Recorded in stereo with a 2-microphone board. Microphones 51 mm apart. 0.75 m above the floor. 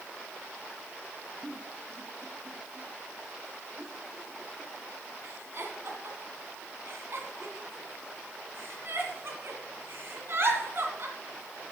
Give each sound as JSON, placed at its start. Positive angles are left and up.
{"t": 1.4, "sound": "a giggle", "side_deg": -50, "distance_m": 2.5}